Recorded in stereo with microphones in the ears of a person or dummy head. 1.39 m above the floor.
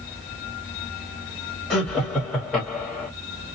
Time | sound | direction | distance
1.7 | laughter | 5° left (ahead or behind) | 1.5 m